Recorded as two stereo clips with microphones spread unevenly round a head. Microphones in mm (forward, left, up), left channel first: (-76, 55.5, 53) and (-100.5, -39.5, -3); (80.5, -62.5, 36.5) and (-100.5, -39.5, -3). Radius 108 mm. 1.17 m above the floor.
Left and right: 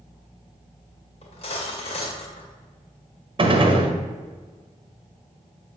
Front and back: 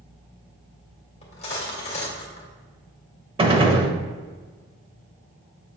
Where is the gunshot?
130° right, 1.4 m.